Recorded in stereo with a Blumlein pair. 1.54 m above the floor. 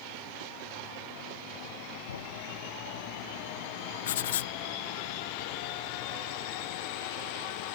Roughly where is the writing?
Ahead left.